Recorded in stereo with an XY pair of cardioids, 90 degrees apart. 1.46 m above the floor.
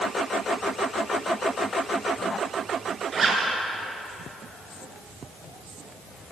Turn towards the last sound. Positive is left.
turn(degrees=-50)